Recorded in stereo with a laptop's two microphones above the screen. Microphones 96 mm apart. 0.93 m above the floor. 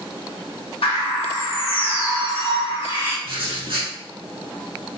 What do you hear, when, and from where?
0.8 s a bird: 75° left (ahead or behind), 0.8 m
3.2 s writing: 60° right (ahead or behind), 1.4 m